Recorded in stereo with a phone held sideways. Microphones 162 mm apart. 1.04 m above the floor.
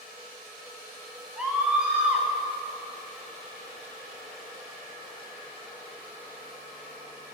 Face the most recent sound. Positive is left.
turn(degrees=-5)  # may be behind; listen again after turning